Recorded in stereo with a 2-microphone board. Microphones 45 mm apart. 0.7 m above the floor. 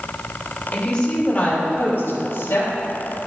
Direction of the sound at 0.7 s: 10° left (ahead or behind).